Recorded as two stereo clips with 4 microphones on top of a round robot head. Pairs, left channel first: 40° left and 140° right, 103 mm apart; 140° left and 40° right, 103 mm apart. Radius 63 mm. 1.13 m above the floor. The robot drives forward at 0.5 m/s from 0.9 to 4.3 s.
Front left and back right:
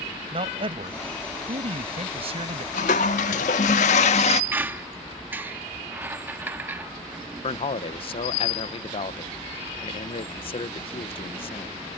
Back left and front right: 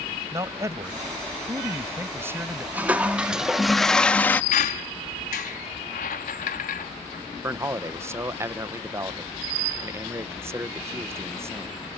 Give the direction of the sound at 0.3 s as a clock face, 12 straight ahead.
3 o'clock.